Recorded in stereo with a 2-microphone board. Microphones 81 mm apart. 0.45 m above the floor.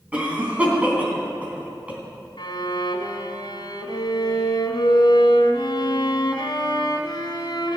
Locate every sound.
0.1 s a cough: 15° right (ahead or behind), 3 m
2.4 s a violin: 70° left (ahead or behind), 1.5 m